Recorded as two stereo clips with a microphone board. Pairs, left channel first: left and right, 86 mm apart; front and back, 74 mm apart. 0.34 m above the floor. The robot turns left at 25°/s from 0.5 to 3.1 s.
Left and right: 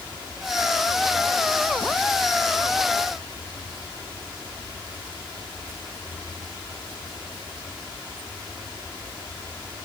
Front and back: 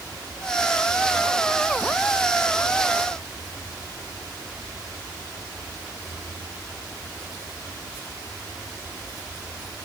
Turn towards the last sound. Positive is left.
No sound to turn to.